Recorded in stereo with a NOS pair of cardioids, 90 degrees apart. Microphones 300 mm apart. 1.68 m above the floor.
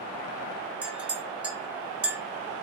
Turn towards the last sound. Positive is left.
turn(degrees=-5)